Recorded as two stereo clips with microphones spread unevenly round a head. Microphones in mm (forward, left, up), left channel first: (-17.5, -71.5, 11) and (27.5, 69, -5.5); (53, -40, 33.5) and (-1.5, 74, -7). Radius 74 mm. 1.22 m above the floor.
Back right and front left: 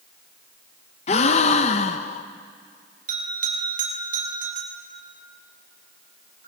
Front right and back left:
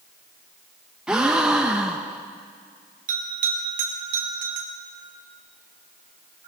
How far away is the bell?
About 4.5 m.